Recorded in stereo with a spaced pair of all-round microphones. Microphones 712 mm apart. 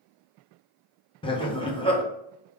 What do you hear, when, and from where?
1.2 s laughter: 10° left (ahead or behind), 0.6 m